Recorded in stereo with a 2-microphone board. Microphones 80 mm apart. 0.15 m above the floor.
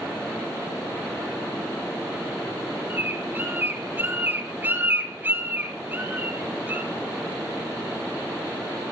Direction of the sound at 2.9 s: 25° right (ahead or behind).